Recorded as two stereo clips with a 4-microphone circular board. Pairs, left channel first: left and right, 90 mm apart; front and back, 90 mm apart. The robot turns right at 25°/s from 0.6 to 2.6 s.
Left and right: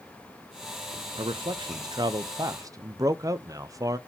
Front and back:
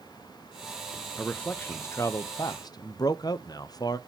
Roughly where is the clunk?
I don't hear a clunk.